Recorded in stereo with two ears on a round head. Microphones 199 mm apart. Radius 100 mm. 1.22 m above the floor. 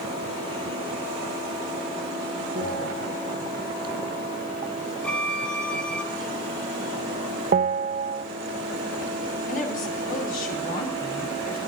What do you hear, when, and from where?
2.5 s a bell: 45° right (ahead or behind), 7.5 m
5.0 s a violin: 5° left (ahead or behind), 1.6 m
7.5 s a bell: 35° right (ahead or behind), 0.8 m
9.5 s a woman speaking: 40° left (ahead or behind), 3 m